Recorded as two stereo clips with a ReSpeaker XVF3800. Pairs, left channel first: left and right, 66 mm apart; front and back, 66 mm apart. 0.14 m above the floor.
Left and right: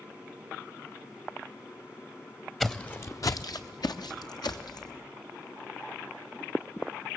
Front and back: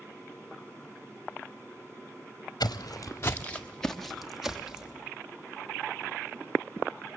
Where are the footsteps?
5° left, 0.7 m; by 4.9 s 100° left, 1.8 m.